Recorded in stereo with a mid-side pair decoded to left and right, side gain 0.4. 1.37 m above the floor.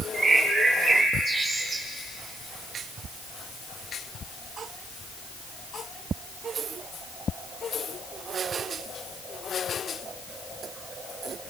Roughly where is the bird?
Ahead right.